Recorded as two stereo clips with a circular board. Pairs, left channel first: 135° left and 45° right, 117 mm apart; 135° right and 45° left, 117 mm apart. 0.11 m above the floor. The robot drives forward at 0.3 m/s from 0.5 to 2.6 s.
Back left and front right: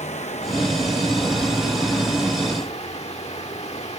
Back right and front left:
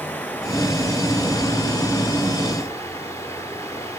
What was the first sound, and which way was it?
Running water, 150° left.